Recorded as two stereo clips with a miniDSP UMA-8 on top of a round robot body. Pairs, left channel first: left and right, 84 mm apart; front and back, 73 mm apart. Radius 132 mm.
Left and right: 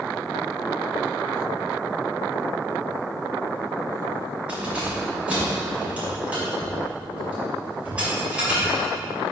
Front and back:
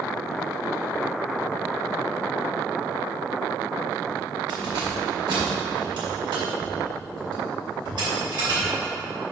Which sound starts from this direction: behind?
Keys jangling, at 4.5 s.